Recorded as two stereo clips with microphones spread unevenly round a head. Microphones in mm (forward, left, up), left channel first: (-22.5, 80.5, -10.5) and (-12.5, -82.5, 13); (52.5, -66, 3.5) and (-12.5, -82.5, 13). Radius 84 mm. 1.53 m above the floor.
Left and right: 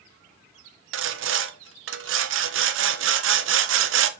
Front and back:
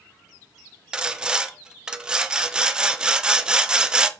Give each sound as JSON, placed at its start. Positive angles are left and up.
{"t": 0.9, "sound": "sawing", "azimuth_deg": -85, "distance_m": 1.0}